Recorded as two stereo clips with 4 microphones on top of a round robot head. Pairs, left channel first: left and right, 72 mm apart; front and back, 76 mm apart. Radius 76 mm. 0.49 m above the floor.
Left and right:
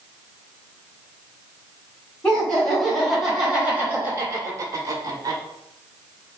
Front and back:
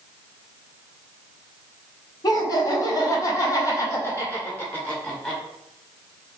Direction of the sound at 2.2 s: 15° left.